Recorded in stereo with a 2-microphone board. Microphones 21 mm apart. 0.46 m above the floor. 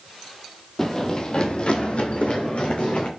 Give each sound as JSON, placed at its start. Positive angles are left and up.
{"t": 0.8, "sound": "running footsteps", "side_deg": 20, "distance_m": 0.7}